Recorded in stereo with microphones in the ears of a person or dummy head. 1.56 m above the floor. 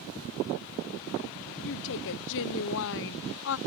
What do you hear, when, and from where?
1.6 s a woman speaking: 70° left (ahead or behind)